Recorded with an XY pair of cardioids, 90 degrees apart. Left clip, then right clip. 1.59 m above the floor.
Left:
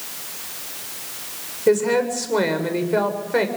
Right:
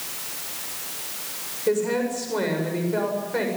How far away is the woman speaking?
About 7.5 m.